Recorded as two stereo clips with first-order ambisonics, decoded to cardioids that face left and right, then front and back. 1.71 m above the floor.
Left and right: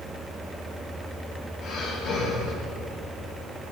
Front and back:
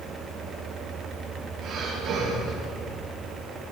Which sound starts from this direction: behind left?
Breathing, at 1.6 s.